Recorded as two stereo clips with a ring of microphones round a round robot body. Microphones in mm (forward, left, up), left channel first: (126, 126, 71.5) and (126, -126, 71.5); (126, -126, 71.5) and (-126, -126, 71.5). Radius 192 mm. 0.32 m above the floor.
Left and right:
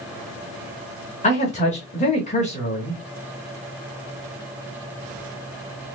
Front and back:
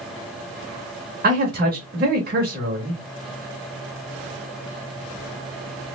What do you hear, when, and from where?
1.2 s a man speaking: 145° left, 1.2 m